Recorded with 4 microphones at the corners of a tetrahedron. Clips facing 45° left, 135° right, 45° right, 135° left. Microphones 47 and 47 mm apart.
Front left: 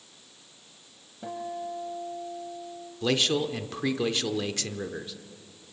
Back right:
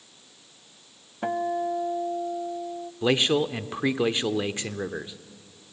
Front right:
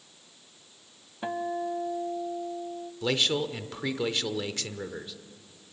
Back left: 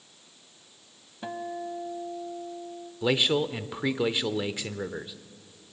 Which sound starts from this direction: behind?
A man speaking, at 3.0 s.